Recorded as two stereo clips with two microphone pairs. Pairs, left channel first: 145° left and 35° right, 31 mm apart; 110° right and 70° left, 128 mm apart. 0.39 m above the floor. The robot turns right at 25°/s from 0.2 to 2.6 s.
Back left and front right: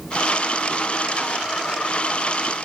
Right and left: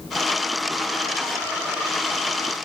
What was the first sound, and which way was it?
Only background noise.